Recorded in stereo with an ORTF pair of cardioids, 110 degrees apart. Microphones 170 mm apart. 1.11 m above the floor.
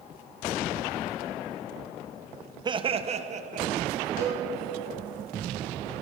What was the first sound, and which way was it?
Laughter, 25° right.